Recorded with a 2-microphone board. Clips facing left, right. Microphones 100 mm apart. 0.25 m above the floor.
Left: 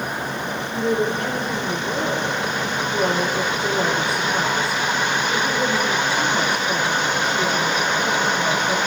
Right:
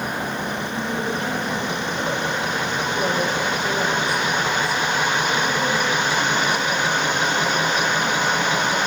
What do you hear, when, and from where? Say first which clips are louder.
0.7 s a woman speaking: left 7 dB; 65° left (ahead or behind), 8 m